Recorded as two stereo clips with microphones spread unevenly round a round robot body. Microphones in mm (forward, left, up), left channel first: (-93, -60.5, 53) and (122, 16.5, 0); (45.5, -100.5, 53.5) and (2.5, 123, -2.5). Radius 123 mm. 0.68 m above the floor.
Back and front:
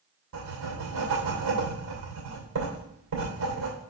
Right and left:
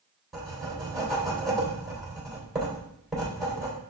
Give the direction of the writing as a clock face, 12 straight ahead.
11 o'clock.